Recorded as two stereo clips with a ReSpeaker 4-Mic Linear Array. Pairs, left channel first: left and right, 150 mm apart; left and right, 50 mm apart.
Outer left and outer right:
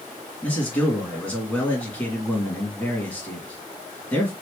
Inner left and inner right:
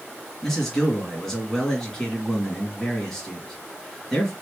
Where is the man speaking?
10° left (ahead or behind), 1.9 m.